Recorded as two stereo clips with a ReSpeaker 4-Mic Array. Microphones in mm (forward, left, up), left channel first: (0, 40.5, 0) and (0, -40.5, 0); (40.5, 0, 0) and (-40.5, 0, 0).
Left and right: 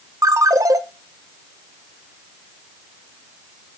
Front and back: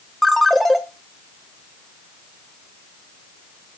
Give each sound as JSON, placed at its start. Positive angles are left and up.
{"t": 0.2, "sound": "a ringtone", "azimuth_deg": -85, "distance_m": 0.8}